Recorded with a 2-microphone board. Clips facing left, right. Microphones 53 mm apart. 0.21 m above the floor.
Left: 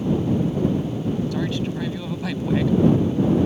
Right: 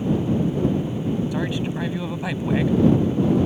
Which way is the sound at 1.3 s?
20° right (ahead or behind).